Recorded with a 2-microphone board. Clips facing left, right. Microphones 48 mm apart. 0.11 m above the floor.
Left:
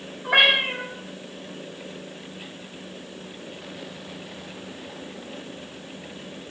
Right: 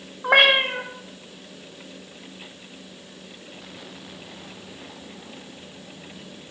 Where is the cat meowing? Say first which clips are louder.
Right 2 dB; 70° right (ahead or behind), 0.7 m.